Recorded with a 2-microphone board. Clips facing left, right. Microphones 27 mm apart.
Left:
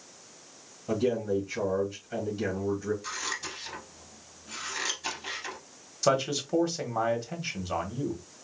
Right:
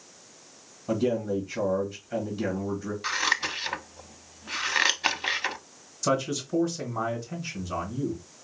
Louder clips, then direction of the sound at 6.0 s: Left 1 dB; 35° left (ahead or behind).